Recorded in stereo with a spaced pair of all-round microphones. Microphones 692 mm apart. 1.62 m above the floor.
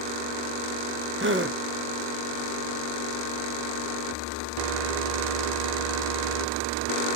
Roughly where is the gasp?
Centre.